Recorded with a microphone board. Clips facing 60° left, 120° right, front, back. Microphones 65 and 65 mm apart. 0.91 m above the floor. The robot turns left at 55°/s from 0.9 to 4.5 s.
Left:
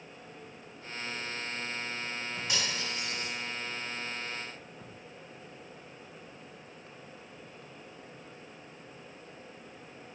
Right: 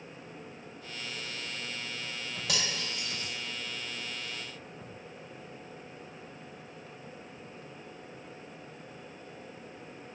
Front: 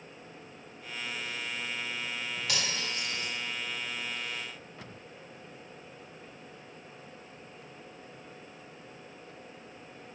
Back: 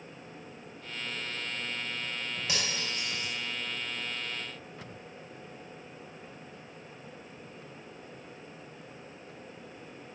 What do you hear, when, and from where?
2.5 s cutlery clinking: 110° right, 2.5 m; by 3.3 s 160° right, 2.5 m